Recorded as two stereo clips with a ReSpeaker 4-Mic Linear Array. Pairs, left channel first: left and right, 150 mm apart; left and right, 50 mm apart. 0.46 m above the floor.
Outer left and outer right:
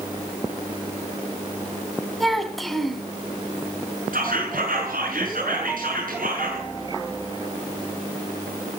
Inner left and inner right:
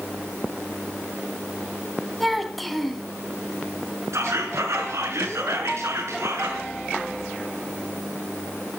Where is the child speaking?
Centre (ahead or behind), 2.5 m.